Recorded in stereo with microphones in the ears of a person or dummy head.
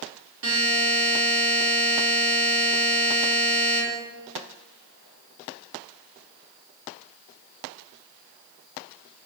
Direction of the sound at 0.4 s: 75° right (ahead or behind).